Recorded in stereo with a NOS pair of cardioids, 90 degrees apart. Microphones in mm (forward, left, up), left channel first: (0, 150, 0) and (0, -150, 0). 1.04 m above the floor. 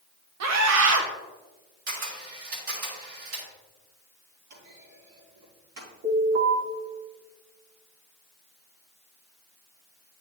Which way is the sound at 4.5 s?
60° right.